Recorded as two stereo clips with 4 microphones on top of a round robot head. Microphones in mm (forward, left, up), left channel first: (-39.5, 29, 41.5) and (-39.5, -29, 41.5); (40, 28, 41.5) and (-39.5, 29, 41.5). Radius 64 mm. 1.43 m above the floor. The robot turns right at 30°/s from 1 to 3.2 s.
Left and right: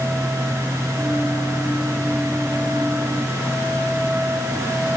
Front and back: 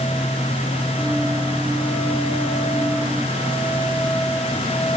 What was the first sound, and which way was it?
Only background noise.